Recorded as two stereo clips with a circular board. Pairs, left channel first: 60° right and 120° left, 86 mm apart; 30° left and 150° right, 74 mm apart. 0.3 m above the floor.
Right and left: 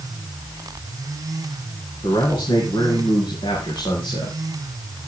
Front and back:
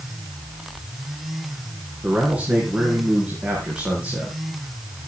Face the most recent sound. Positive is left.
turn(degrees=-75)